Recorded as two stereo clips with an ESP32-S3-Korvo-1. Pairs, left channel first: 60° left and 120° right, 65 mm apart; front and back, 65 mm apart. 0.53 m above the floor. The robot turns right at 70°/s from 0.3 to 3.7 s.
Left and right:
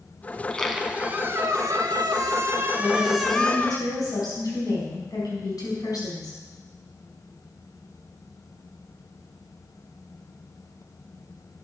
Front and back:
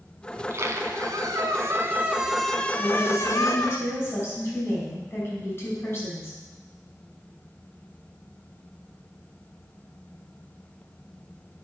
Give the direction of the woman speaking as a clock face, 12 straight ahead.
12 o'clock.